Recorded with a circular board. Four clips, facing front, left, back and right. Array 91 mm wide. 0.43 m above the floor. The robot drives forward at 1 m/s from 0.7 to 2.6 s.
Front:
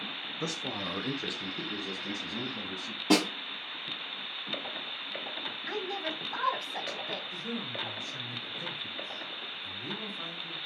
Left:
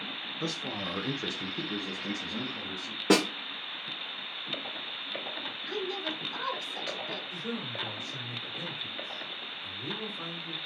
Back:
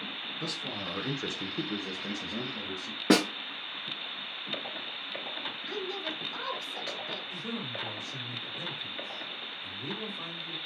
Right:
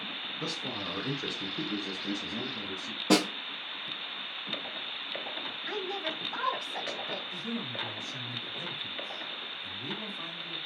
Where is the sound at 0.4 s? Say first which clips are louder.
Left 2 dB, front 3 dB; 15° left, 0.8 m; by 3.0 s 175° left, 1.8 m.